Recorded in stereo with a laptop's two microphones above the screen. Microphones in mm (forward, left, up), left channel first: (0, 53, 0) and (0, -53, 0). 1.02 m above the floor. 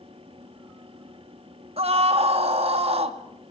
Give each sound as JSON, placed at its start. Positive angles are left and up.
{"t": 0.0, "sound": "a fan", "side_deg": -60, "distance_m": 1.9}
{"t": 1.8, "sound": "a scream", "side_deg": -70, "distance_m": 2.0}